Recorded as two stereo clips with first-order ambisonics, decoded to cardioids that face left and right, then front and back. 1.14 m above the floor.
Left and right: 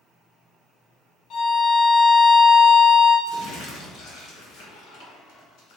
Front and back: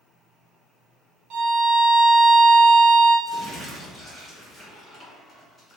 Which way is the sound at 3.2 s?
75° left.